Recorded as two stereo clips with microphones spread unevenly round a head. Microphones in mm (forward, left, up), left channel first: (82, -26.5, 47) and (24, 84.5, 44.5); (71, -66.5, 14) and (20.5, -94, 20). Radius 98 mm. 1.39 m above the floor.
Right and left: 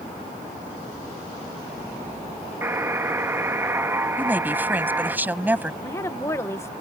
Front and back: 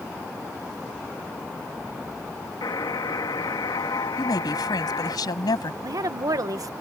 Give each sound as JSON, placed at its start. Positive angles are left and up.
{"t": 2.6, "sound": "a buzzer", "azimuth_deg": 45}
{"t": 4.2, "sound": "a woman speaking", "azimuth_deg": 40}
{"t": 5.8, "sound": "a woman speaking", "azimuth_deg": -135}